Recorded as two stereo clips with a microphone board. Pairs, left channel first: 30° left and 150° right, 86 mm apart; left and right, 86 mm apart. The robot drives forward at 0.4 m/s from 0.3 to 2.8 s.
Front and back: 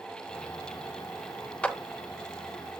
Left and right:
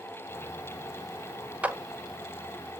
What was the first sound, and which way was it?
A clap, 30° right.